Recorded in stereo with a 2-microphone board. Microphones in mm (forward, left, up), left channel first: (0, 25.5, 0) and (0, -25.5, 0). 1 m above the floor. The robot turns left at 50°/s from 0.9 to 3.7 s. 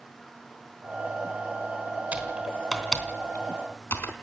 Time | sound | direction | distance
2.1 | typing on a keyboard | 30° right (ahead or behind) | 3.5 m